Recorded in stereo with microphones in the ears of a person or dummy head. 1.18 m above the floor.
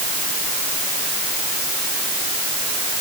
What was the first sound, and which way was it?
Only background noise.